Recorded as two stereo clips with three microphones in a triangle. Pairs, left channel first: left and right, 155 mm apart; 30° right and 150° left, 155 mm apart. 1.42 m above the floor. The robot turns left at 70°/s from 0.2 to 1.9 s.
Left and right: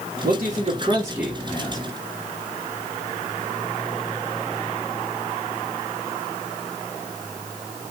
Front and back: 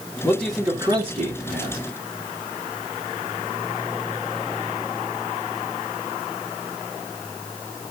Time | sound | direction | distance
0.2 | a man speaking | 105° right | 3 m